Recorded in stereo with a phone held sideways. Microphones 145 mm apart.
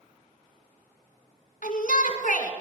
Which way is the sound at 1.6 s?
65° left (ahead or behind).